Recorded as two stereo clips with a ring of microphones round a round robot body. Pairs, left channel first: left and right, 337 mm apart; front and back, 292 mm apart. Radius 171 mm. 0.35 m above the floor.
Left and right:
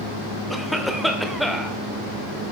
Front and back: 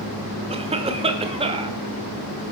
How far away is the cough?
About 0.8 m.